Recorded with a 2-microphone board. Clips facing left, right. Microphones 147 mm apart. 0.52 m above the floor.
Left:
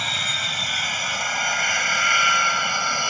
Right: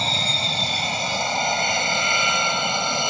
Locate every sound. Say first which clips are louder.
0.0 s an aircraft: right 5 dB; 30° right (ahead or behind); by 3.1 s 20° right (ahead or behind)